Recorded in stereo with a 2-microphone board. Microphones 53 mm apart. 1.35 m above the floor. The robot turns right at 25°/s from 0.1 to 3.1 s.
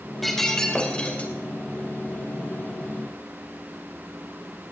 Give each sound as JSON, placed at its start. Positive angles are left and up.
{"t": 0.2, "sound": "breaking glass", "side_deg": 5, "distance_m": 2.5}